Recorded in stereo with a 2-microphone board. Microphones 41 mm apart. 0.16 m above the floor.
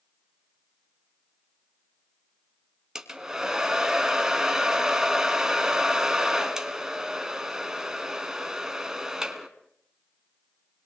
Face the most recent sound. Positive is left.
turn(degrees=-15)  # may be behind; listen again after turning